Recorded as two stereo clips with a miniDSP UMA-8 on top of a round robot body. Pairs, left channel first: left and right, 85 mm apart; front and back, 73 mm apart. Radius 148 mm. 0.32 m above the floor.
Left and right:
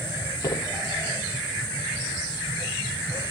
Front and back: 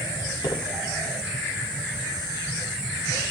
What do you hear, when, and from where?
0.4 s footsteps: 35° left, 6.5 m